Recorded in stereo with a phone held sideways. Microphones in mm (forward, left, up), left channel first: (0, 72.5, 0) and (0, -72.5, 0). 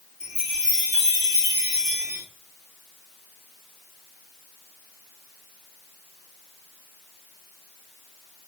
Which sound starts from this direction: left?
A chime, at 0.2 s.